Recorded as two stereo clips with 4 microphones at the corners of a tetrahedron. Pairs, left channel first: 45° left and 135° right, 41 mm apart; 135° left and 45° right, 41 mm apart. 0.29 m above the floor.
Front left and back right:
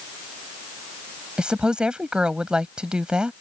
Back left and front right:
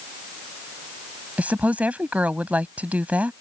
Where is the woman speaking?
75° right.